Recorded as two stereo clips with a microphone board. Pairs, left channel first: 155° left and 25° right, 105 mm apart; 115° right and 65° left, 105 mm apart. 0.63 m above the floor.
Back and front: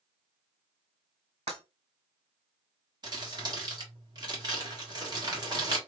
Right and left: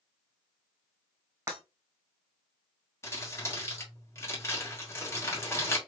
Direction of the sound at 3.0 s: 55° right.